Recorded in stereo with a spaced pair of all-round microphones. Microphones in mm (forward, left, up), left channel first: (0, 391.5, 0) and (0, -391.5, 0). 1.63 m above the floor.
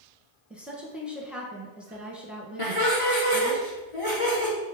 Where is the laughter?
40° left (ahead or behind), 2.5 m.